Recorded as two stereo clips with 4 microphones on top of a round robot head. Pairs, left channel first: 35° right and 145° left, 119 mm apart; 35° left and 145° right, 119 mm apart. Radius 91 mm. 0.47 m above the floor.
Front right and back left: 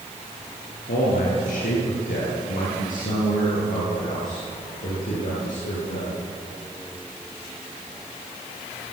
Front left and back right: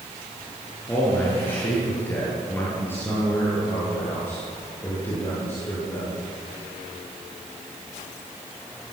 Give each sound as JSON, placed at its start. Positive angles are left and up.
{"t": 0.9, "sound": "a man speaking", "azimuth_deg": -35, "distance_m": 8.5}